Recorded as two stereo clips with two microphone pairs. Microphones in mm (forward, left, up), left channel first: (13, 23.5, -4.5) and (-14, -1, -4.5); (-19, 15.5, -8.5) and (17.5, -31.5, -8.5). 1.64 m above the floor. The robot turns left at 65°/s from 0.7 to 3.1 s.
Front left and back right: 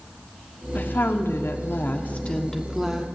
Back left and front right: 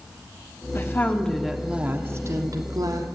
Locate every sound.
0.8 s a woman speaking: 80° left, 1.3 m; by 3.1 s 70° right, 1.3 m